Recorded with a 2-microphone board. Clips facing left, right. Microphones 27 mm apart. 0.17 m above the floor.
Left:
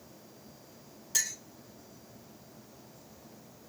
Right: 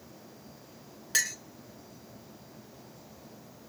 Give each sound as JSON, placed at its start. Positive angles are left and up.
{"t": 1.1, "sound": "a clink", "side_deg": -50, "distance_m": 1.4}